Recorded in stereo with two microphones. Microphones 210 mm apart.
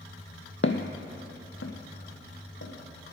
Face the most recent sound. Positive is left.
turn(degrees=85)